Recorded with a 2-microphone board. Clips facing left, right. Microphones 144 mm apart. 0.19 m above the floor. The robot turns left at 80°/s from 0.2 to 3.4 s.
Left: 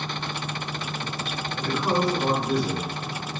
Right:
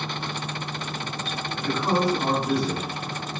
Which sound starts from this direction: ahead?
A woman speaking, at 1.6 s.